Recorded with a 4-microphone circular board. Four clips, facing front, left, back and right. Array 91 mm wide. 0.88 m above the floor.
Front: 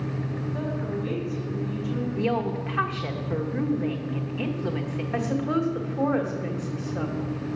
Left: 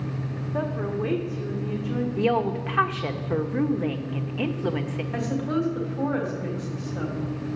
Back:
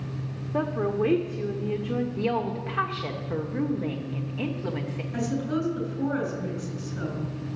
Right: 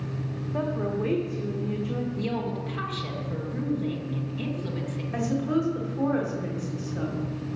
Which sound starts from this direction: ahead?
A woman speaking, at 5.1 s.